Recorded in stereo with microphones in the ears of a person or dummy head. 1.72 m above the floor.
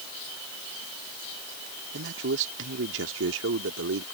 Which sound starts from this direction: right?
A man speaking, at 1.9 s.